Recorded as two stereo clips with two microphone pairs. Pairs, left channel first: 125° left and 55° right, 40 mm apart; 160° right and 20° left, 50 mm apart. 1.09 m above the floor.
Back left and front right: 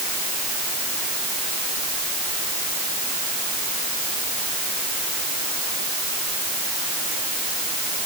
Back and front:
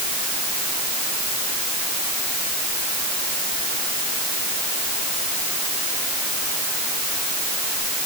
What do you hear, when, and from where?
Only background noise.